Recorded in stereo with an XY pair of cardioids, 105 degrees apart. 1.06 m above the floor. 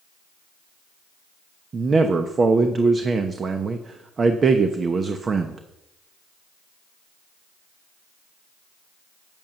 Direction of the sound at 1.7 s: 40° right.